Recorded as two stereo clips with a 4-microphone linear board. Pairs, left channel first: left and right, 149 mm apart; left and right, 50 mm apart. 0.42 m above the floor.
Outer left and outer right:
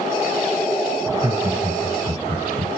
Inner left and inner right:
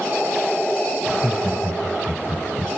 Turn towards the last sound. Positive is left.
turn(degrees=-40)  # may be behind; listen again after turning